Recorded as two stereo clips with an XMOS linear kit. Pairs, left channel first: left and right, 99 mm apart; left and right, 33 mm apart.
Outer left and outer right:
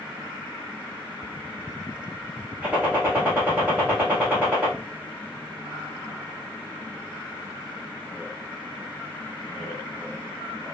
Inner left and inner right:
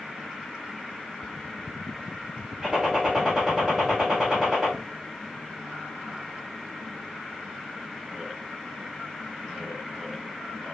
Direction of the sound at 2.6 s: 20° right (ahead or behind).